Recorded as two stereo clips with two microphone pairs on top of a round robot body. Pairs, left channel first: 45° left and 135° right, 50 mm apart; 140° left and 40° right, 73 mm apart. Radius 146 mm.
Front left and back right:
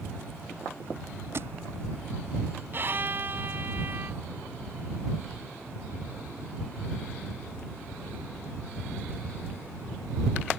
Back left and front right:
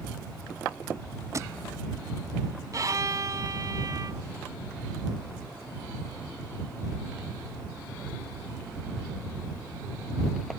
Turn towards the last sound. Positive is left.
turn(degrees=-85)